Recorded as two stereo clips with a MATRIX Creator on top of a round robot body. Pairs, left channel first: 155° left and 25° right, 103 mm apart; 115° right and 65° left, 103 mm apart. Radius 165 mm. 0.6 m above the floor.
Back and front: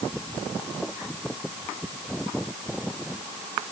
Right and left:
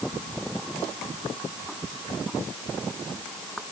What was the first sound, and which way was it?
Only background noise.